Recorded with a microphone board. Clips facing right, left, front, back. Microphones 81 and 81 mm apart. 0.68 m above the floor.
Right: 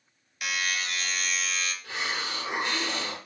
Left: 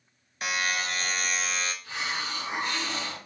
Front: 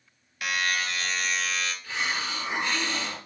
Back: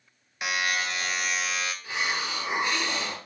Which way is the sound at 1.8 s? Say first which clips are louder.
Even, back 2 dB; 105° right.